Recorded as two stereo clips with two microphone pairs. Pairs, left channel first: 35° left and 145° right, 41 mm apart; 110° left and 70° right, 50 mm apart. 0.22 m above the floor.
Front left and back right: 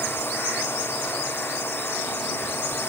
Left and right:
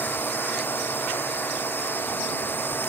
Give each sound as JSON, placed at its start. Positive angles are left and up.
{"t": 0.0, "sound": "a drone", "azimuth_deg": 60}